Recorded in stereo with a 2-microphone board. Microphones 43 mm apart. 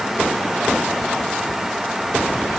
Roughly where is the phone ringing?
No phone ringing in this recording.